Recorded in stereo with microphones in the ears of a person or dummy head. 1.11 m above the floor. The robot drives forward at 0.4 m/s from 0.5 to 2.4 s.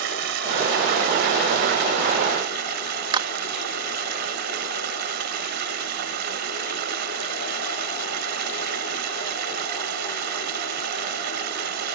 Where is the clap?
30° right (ahead or behind).